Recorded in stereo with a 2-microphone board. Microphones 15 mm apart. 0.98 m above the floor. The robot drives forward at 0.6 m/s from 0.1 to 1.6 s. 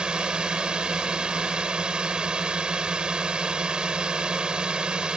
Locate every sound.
0.0 s a drone: 80° right